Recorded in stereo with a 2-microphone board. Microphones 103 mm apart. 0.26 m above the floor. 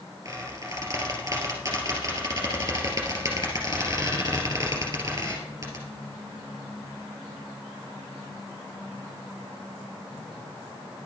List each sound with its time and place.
0.2 s a squeak: 30° right (ahead or behind), 2.5 m